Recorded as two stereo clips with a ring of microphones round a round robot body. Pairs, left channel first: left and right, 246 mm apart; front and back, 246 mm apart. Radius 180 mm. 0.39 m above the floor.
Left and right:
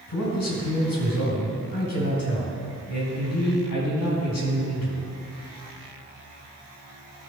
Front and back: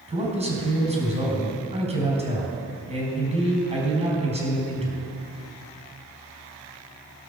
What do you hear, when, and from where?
0.1 s a man speaking: 115° left, 4.5 m